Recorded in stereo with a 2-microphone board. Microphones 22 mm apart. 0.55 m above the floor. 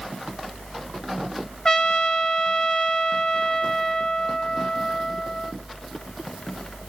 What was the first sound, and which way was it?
A trumpet, 30° left (ahead or behind).